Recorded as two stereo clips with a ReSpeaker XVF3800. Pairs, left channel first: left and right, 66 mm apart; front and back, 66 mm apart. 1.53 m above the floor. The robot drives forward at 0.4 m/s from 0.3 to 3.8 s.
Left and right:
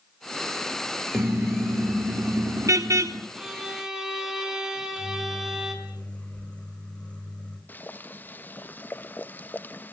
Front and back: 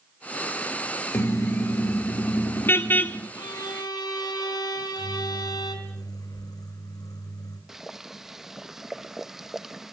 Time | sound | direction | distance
1.1 | a car horn | 45° right | 2.5 m
3.3 | a violin | 5° right | 4.5 m
4.8 | a microwave | 20° left | 6 m
7.7 | boiling | 100° left | 0.8 m